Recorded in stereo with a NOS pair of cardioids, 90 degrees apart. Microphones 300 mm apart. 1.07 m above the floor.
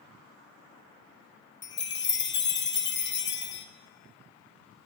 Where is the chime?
35° left, 1.0 m.